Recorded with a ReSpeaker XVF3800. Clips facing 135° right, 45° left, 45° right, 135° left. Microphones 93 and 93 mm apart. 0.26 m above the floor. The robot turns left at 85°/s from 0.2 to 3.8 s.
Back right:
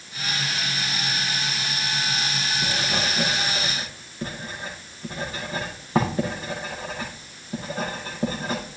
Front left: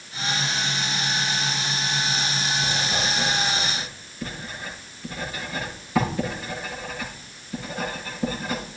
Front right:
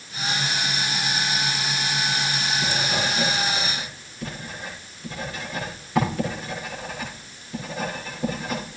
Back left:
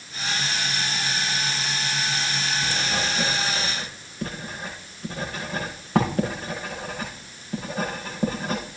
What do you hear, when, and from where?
2.6 s writing: 85° right, 8 m; by 8.8 s 175° left, 8 m